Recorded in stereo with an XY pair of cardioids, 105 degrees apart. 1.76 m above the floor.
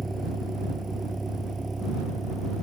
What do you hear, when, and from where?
0.0 s a vehicle: 15° right; by 2.6 s 20° right